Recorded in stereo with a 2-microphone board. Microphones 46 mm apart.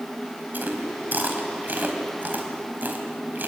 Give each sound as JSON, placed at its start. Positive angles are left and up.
{"t": 0.5, "sound": "chewing", "side_deg": -45, "distance_m": 4.0}